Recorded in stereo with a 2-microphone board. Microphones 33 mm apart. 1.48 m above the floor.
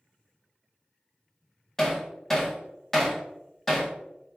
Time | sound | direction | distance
1.8 | hammering | 10° left (ahead or behind) | 1.8 m